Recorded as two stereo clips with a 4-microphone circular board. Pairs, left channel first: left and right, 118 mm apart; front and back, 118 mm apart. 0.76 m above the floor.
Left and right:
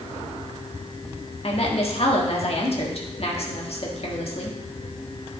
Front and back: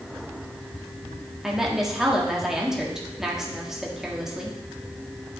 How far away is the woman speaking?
About 1.5 m.